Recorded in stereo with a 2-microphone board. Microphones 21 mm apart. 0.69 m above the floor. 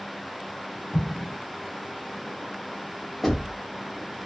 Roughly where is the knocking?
Centre.